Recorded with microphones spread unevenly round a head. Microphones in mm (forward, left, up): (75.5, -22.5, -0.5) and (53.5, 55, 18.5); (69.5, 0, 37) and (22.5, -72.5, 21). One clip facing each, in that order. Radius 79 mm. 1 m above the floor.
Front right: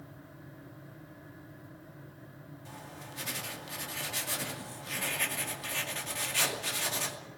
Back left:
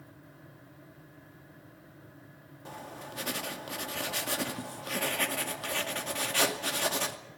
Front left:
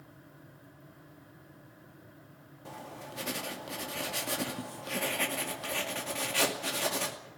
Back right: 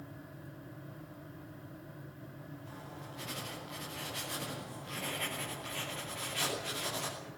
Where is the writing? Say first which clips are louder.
Back left 6 dB, front left 9 dB; 75° left, 2.5 m.